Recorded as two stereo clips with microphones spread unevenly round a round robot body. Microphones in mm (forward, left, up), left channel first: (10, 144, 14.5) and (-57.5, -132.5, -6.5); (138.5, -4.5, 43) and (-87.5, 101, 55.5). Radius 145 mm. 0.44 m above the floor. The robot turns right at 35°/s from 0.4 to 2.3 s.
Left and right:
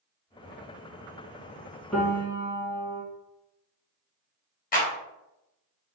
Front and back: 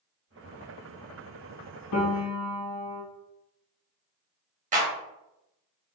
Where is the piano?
10° right, 1.0 m; by 3.0 s 5° left, 1.0 m.